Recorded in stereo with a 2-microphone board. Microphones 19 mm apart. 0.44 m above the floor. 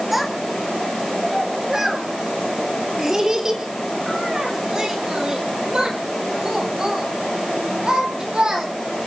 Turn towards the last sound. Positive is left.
turn(degrees=-45)  # may be behind; listen again after turning